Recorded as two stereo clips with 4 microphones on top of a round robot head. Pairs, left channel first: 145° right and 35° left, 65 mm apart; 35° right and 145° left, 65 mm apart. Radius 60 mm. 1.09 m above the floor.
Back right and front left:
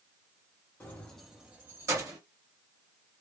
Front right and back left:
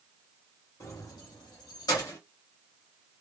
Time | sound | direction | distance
0.8 | keys jangling | 85° right | 1.0 m